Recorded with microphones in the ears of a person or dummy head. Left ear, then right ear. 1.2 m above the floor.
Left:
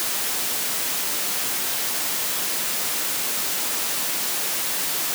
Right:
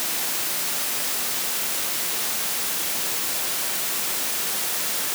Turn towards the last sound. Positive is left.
No sound to turn to.